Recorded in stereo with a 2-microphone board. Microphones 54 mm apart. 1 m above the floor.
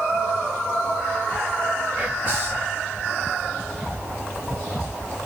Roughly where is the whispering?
Right.